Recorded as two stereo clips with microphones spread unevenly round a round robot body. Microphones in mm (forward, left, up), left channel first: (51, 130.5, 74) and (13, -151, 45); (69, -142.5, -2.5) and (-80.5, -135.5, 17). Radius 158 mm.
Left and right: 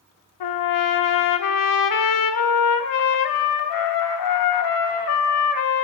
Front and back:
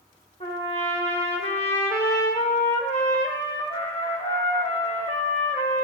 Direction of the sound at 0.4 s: 65° left.